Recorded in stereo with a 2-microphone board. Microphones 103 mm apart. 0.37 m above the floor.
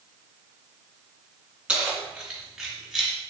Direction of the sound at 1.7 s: 10° right (ahead or behind).